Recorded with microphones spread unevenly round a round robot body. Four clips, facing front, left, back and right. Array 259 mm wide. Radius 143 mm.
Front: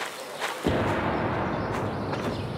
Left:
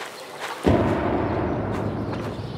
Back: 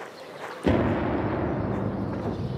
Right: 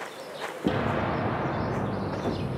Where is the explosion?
95° left, 1.5 m.